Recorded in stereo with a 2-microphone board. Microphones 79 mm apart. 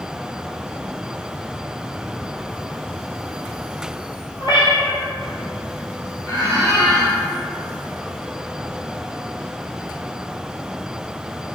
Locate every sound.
4.4 s a cat meowing: 70° left (ahead or behind), 1.0 m
6.2 s a squeak: 45° left (ahead or behind), 1.8 m